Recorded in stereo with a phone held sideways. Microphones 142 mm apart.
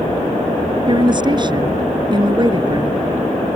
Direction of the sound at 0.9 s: 35° right (ahead or behind).